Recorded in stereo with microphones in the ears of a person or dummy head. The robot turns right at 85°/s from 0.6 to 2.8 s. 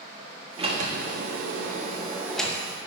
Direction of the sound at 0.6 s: 150° right.